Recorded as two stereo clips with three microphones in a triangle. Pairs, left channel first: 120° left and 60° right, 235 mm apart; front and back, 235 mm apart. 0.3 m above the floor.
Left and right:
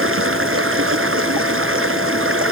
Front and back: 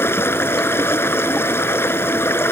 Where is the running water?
80° right.